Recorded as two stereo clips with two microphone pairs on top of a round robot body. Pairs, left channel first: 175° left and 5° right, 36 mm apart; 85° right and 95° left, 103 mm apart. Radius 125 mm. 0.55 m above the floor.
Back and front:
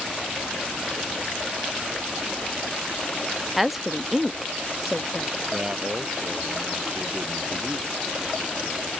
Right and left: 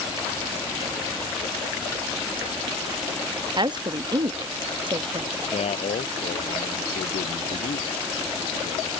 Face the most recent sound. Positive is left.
turn(degrees=-75)